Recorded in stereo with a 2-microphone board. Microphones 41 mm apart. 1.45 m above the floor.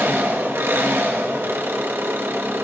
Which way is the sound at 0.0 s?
80° right.